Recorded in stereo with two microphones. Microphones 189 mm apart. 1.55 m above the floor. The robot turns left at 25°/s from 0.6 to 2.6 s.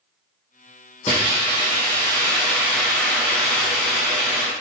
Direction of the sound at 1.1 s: 35° left.